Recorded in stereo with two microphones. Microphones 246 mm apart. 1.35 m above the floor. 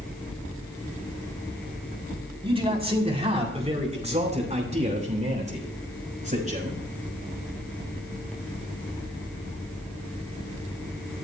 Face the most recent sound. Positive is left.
turn(degrees=-30)  # may be behind; listen again after turning